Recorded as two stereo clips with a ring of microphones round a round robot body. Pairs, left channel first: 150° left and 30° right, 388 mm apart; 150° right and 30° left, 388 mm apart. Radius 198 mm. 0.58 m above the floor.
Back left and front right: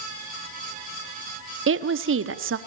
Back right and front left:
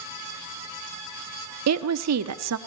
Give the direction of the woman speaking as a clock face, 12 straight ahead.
12 o'clock.